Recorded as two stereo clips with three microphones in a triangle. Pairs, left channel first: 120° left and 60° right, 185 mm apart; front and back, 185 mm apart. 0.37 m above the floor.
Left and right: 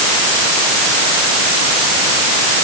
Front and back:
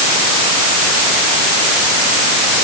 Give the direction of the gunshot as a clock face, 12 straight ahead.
No gunshot in this recording.